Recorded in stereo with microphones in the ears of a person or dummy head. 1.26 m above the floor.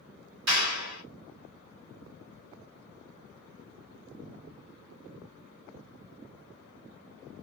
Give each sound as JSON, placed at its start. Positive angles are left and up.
{"t": 0.5, "sound": "a clap", "side_deg": -60, "distance_m": 1.6}